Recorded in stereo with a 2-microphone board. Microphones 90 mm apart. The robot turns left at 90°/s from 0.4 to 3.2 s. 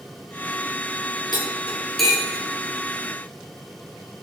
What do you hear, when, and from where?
1.3 s cutlery clinking: 60° left (ahead or behind), 4 m; by 2.4 s 35° right (ahead or behind), 4 m